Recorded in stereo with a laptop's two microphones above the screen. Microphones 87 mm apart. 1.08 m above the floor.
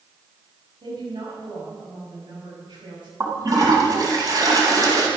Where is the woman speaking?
60° right (ahead or behind), 7.5 m.